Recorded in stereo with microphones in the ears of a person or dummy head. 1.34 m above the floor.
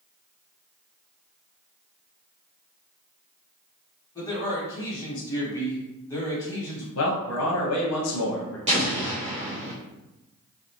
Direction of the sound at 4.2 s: 20° left (ahead or behind).